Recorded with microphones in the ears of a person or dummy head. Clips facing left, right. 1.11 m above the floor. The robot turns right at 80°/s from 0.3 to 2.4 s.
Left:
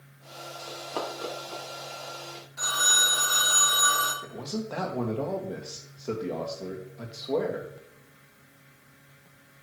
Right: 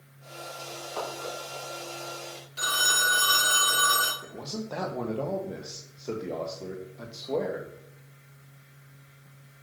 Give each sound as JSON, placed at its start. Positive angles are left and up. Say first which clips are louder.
{"t": 0.7, "sound": "running footsteps", "louder": "left 2 dB", "side_deg": 55, "distance_m": 4.5}
{"t": 2.6, "sound": "a phone ringing", "louder": "right 1 dB", "side_deg": -45, "distance_m": 1.6}
{"t": 4.2, "sound": "a man speaking", "louder": "left 3 dB", "side_deg": 0, "distance_m": 1.6}